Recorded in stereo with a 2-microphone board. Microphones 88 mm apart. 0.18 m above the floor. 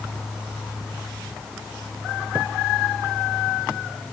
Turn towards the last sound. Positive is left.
No sound to turn to.